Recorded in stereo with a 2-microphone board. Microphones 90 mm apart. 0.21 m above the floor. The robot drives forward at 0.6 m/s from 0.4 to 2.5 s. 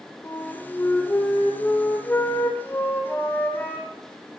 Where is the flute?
25° left (ahead or behind), 5.5 m; by 3.9 s 20° left (ahead or behind), 6.5 m.